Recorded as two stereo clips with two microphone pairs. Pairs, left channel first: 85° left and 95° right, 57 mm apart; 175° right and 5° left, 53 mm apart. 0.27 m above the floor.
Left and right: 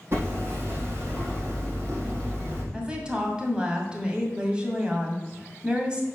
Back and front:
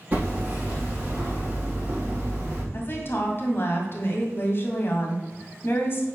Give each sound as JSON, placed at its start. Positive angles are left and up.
{"t": 0.1, "sound": "hammering", "azimuth_deg": -55, "distance_m": 4.5}
{"t": 2.7, "sound": "a woman speaking", "azimuth_deg": -160, "distance_m": 2.0}